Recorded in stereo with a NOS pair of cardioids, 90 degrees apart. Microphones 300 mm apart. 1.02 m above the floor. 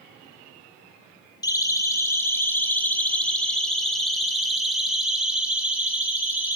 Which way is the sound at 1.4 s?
10° left.